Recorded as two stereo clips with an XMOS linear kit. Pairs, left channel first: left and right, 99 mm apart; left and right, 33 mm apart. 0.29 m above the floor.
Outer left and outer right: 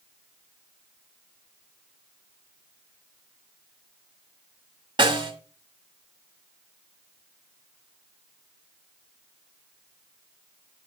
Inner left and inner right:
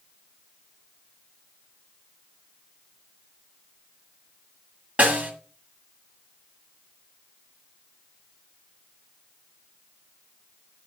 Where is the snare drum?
45° right (ahead or behind), 1.7 m.